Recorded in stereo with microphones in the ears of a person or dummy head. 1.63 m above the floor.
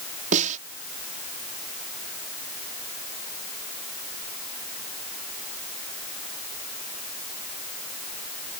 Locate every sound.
0.3 s a snare drum: 40° right (ahead or behind)